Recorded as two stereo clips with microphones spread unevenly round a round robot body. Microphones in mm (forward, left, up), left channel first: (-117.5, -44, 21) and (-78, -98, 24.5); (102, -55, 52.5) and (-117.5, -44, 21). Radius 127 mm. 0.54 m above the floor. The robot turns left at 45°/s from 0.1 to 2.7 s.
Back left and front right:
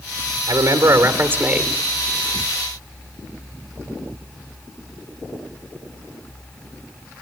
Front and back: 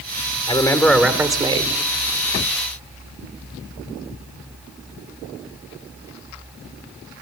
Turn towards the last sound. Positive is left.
turn(degrees=-175)